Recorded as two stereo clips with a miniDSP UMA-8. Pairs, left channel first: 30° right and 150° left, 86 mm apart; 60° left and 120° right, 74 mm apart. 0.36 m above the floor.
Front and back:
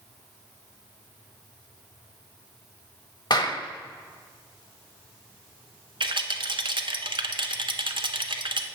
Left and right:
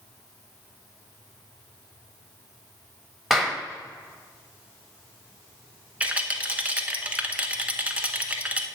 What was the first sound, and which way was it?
A clap, 30° right.